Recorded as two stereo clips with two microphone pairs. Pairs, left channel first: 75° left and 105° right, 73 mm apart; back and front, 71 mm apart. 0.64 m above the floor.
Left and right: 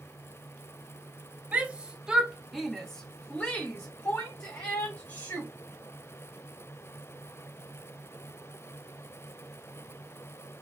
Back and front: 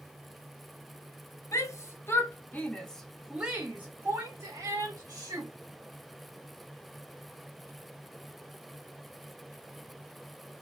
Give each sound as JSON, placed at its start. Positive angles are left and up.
{"t": 1.5, "sound": "a shout", "azimuth_deg": -170, "distance_m": 1.1}